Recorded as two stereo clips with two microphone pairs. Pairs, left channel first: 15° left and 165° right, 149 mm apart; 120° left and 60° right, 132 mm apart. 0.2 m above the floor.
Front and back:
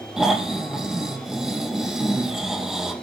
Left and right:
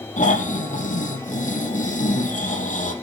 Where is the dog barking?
No dog barking in this recording.